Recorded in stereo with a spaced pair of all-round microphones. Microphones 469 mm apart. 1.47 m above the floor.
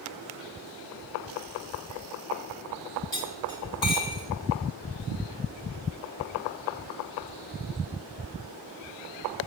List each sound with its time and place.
3.1 s cutlery clinking: 65° left (ahead or behind), 5 m